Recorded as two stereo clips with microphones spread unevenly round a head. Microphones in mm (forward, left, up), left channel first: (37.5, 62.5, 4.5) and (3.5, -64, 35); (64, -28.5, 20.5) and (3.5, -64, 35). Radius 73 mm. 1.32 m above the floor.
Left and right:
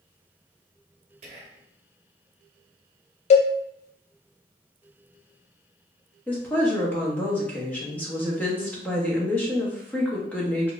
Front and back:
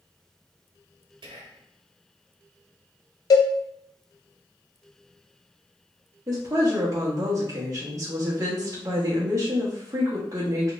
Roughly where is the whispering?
Behind right.